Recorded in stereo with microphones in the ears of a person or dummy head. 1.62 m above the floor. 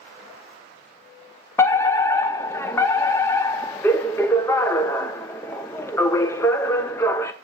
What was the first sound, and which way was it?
A fire alarm, 10° left (ahead or behind).